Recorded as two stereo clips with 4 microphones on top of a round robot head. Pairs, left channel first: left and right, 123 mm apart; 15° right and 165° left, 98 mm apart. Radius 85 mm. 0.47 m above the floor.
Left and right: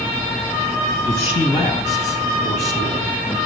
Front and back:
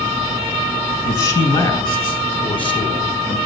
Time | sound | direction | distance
1.1 | a man speaking | 30° left | 6 m